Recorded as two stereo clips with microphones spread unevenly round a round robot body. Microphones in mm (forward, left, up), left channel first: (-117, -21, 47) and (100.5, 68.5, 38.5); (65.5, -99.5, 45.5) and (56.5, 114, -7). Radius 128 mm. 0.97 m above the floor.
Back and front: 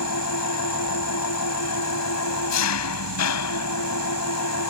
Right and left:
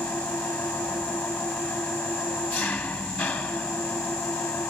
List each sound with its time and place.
0.0 s an engine running: 170° right